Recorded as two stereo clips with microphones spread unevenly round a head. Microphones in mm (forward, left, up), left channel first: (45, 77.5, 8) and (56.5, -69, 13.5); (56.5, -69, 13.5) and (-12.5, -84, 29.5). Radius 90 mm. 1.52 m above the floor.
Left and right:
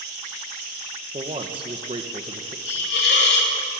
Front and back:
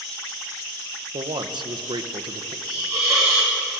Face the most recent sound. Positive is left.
turn(degrees=120)